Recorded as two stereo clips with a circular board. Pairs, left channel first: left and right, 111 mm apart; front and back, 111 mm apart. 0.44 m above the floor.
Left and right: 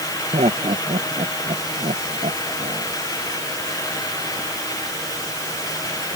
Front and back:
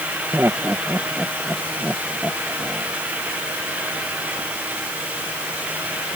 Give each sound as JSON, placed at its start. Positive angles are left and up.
{"t": 0.3, "sound": "laughter", "azimuth_deg": -110}